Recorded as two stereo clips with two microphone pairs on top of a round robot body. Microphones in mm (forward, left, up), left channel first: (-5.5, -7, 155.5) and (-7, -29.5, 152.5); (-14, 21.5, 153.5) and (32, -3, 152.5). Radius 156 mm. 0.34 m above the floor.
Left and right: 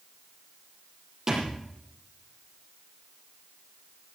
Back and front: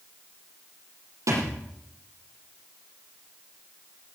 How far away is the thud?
About 8 m.